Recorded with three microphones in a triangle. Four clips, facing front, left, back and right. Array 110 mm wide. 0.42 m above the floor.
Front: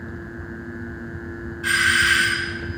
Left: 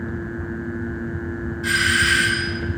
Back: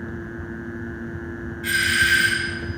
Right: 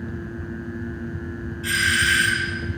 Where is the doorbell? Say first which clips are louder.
Left 2 dB, front 2 dB; 15° left, 5.5 m.